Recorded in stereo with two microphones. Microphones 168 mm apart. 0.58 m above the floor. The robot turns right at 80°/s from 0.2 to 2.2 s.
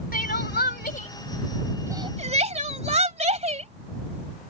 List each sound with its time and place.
0.1 s crying: 60° left (ahead or behind); by 3.7 s 45° right (ahead or behind)